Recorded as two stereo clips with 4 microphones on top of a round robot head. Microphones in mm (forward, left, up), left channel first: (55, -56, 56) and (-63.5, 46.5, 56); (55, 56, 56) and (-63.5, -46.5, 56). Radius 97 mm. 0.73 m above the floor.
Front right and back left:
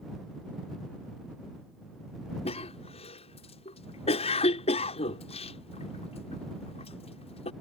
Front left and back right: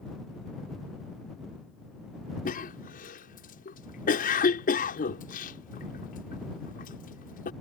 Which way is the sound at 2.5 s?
10° left.